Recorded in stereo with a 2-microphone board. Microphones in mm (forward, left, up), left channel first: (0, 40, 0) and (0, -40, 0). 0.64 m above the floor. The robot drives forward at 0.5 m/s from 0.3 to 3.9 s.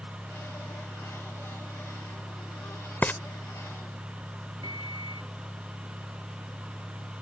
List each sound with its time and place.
3.0 s frying: 20° left (ahead or behind)
4.6 s a microwave: 65° right (ahead or behind)